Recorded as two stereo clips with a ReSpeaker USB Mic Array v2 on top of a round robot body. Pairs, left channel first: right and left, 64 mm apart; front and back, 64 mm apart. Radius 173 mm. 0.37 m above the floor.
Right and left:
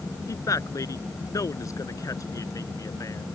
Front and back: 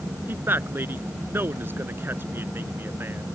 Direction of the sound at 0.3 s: 125° right.